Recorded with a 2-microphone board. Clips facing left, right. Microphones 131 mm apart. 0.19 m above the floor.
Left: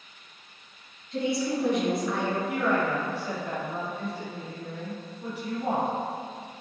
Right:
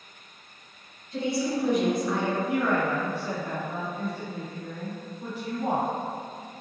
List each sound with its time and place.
1.1 s a woman speaking: 15° right (ahead or behind), 1.9 m
2.5 s a woman speaking: 40° right (ahead or behind), 1.9 m